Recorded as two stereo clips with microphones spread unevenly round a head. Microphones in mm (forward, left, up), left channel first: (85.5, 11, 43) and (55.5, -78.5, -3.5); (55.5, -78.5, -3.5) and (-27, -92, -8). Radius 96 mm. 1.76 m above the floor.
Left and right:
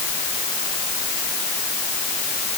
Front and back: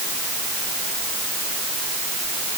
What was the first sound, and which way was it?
Only background noise.